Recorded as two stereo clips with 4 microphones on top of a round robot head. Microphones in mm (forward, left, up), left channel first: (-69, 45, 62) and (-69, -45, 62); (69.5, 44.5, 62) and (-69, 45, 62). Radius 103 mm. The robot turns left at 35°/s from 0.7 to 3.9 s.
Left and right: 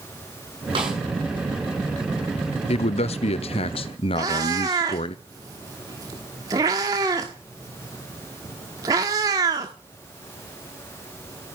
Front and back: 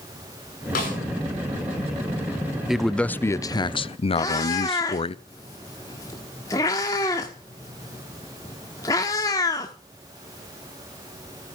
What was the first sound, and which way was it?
A snare drum, 35° right.